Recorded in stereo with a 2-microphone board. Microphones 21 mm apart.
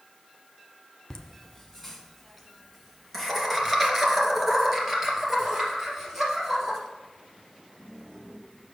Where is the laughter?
20° left (ahead or behind), 1.3 m; by 6.8 s 20° right (ahead or behind), 4.5 m.